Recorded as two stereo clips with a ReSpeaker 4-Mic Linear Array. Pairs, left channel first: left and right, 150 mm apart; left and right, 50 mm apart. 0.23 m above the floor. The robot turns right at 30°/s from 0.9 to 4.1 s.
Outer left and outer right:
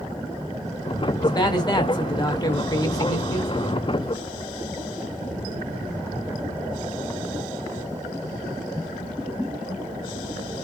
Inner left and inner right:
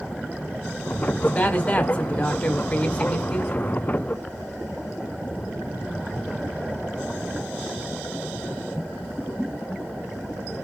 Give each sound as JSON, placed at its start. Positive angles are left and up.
{"t": 1.2, "sound": "a man speaking", "side_deg": 25, "distance_m": 1.6}